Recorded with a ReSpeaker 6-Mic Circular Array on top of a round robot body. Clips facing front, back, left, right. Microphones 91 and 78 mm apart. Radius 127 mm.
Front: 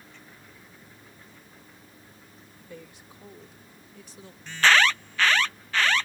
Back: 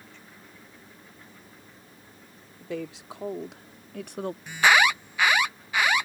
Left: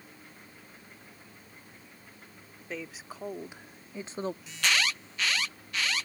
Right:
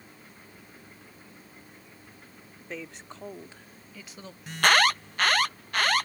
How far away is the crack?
I don't hear a crack.